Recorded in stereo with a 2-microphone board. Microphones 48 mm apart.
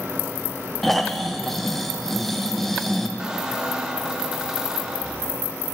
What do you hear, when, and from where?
0.8 s snoring: centre (ahead or behind), 0.7 m
3.2 s a squeak: 15° right (ahead or behind), 1.0 m